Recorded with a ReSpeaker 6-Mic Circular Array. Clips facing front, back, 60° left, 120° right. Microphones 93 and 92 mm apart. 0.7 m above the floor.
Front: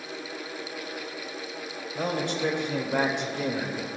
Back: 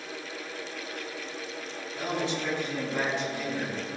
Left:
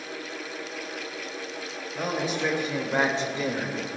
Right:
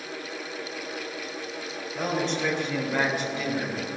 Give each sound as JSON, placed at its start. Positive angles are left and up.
{"t": 1.9, "sound": "a man speaking", "azimuth_deg": -30, "distance_m": 3.5}